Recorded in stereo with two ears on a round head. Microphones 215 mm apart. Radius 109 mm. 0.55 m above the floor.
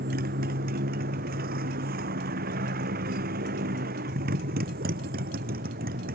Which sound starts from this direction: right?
A motorcycle, at 0.0 s.